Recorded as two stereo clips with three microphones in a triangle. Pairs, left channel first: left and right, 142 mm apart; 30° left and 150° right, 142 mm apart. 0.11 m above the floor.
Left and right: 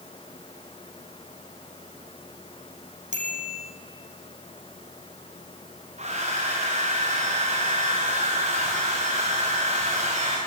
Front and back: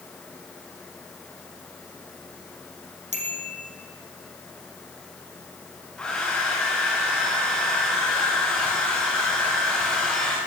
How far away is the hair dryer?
About 6 m.